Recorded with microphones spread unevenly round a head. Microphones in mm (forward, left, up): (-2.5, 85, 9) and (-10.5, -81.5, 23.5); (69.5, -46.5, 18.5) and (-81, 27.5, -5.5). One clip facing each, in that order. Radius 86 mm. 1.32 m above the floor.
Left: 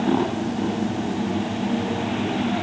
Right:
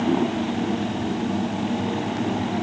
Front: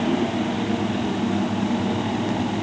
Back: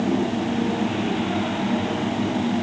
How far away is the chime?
I don't hear a chime.